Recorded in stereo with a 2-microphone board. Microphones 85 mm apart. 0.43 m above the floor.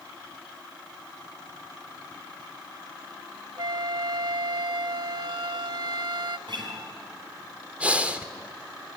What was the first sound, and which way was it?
A flute, 60° right (ahead or behind).